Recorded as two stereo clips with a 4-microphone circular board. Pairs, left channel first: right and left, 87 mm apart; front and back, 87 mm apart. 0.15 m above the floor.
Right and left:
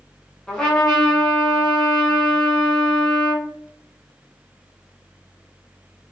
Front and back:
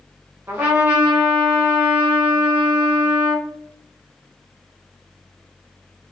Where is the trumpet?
160° right, 1.2 m.